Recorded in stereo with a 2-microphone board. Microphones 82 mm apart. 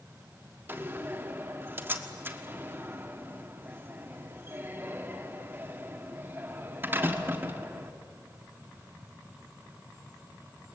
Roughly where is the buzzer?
I don't hear a buzzer.